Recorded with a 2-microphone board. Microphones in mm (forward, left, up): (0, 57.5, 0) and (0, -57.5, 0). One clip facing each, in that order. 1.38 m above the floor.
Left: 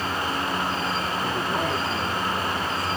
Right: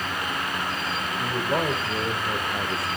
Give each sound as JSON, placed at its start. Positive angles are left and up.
{"t": 1.2, "sound": "a man speaking", "side_deg": -80, "distance_m": 5.0}